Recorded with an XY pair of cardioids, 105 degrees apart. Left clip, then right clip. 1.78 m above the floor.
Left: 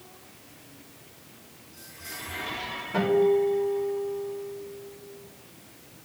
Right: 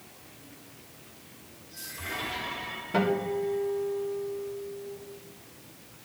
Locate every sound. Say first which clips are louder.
2.9 s a guitar: left 6 dB; 25° right, 3 m